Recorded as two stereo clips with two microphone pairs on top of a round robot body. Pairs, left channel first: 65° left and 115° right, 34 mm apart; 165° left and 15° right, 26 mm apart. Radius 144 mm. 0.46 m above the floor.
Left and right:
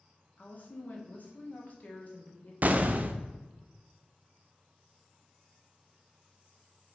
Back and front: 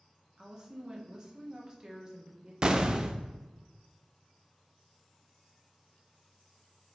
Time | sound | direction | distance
0.4 | a woman speaking | 35° left | 1.8 m
2.6 | an explosion | 75° right | 0.5 m